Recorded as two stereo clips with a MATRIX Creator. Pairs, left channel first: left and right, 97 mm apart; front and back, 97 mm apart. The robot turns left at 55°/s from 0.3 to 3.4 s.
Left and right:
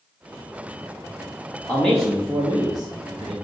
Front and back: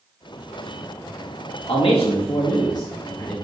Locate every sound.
1.7 s a man speaking: 20° left, 1.3 m; by 3.3 s 70° right, 1.3 m